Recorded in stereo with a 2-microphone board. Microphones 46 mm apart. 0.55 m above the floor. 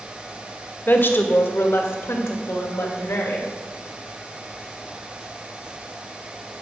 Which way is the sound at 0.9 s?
45° left (ahead or behind).